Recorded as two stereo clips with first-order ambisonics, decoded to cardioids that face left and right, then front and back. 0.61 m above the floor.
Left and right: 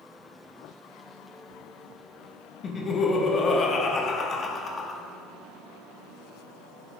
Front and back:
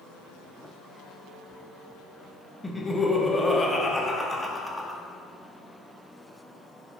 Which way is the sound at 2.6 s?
75° left.